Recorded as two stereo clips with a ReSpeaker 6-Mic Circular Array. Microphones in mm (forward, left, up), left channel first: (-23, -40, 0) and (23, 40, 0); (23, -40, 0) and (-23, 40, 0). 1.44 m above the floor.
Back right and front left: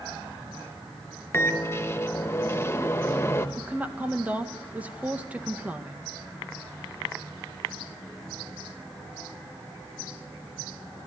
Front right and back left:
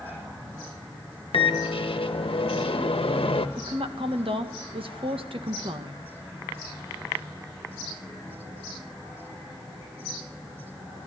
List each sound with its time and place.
1.3 s a microwave: 60° right, 1.2 m
3.6 s a woman speaking: 135° left, 1.7 m